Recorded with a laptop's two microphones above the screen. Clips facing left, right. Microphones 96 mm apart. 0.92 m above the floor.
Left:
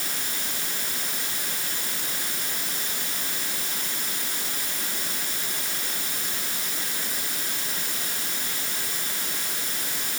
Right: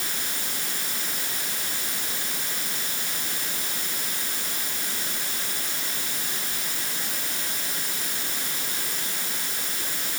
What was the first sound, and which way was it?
Only background noise.